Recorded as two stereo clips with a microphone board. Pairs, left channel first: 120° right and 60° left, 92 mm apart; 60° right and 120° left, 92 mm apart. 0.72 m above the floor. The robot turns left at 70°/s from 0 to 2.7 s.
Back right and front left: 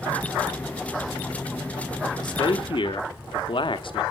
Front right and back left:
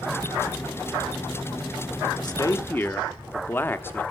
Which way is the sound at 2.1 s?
80° right.